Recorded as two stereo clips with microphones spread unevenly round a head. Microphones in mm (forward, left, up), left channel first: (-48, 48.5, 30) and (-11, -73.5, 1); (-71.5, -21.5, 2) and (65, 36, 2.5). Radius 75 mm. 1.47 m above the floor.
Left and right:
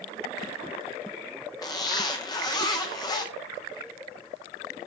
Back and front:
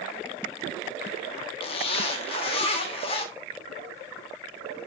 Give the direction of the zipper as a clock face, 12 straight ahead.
7 o'clock.